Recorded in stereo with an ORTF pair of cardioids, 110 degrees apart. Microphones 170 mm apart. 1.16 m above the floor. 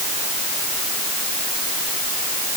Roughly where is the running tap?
I don't hear a running tap.